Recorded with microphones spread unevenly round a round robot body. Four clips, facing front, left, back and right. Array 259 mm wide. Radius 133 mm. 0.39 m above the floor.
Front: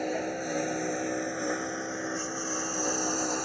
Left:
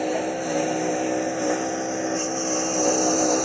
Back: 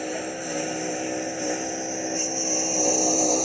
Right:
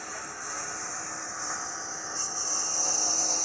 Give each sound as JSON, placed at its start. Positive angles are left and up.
{"t": 0.0, "sound": "a lawn mower", "azimuth_deg": 90}